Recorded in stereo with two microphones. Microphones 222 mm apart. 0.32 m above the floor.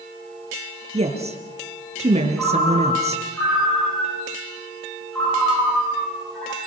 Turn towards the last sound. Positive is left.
turn(degrees=5)  # may be behind; listen again after turning